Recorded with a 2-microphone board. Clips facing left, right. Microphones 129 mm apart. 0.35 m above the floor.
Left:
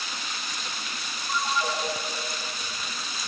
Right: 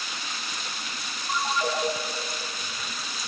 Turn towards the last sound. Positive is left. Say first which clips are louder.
# right 1 dB
turn(degrees=-25)  # may be behind; listen again after turning